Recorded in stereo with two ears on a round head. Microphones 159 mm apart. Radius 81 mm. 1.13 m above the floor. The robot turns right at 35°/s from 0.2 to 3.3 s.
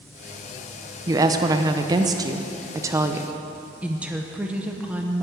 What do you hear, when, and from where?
1.1 s a woman speaking: 20° right (ahead or behind), 0.6 m; by 3.3 s 15° right (ahead or behind), 0.6 m
3.8 s a woman speaking: 5° right (ahead or behind), 0.8 m